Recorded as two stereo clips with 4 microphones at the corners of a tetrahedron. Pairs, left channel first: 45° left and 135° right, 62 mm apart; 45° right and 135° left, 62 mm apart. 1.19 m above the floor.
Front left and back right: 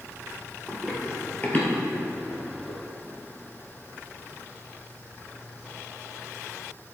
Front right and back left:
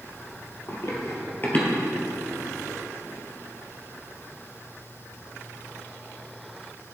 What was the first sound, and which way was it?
Running footsteps, 50° right.